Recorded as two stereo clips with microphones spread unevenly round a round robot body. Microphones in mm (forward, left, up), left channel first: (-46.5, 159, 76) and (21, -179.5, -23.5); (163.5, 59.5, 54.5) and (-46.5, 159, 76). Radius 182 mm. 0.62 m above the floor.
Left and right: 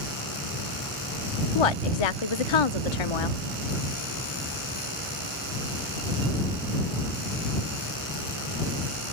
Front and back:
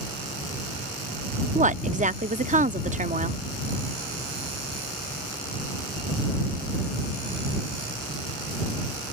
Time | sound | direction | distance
1.6 | a woman speaking | 95° left | ?